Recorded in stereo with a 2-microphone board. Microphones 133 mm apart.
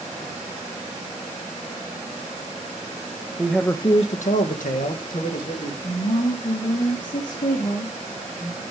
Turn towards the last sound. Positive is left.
turn(degrees=85)